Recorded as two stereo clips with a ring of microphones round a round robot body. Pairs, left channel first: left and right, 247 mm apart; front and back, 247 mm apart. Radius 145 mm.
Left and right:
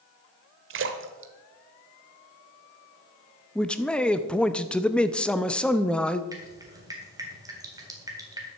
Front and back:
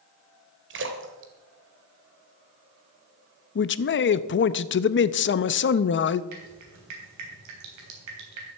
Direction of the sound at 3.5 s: 5° left.